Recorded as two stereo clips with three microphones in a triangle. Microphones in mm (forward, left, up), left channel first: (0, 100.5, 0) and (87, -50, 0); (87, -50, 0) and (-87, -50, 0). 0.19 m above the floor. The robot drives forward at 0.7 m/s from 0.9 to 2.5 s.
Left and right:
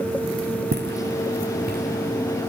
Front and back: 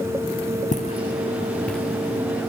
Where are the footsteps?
45° right, 0.7 m; by 2.5 s 95° right, 2.5 m.